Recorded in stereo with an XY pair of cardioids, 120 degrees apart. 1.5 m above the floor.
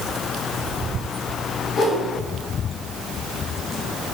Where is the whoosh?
60° left, 3.5 m.